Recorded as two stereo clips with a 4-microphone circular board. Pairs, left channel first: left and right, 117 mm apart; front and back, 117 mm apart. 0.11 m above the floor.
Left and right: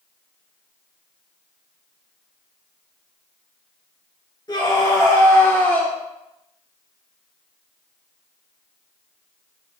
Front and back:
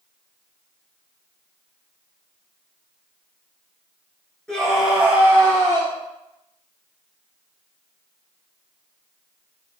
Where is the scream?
80° left, 2.0 m; by 5.9 s 165° left, 2 m.